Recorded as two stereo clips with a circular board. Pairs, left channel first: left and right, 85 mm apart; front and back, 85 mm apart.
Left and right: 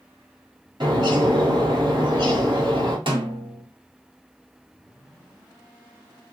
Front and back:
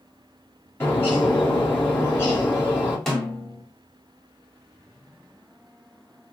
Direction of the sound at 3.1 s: 85° right.